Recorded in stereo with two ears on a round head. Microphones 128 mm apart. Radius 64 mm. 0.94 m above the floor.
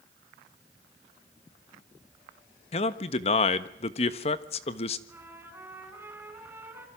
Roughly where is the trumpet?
Centre.